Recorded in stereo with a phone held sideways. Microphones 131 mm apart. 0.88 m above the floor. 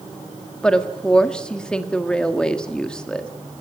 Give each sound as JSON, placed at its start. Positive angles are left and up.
{"t": 0.6, "sound": "a woman speaking", "side_deg": 5, "distance_m": 1.5}